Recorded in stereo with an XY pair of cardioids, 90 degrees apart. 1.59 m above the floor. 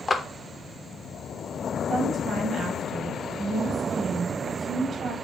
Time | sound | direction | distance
0.1 | a clap | 25° left | 0.6 m
1.9 | a woman speaking | 65° right | 1.2 m